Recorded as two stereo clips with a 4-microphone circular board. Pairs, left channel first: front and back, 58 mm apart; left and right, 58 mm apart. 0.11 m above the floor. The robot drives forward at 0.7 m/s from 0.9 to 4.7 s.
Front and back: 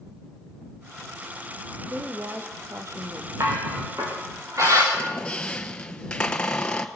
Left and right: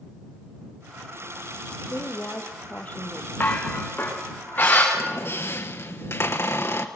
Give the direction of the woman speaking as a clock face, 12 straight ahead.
7 o'clock.